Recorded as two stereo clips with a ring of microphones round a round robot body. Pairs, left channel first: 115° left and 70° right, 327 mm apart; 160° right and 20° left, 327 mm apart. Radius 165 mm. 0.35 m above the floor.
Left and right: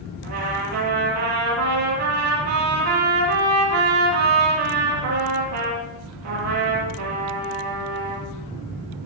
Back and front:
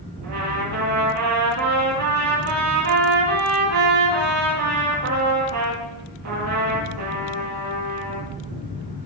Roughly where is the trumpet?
Ahead.